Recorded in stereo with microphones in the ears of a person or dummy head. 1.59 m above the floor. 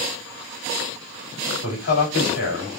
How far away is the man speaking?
About 3 m.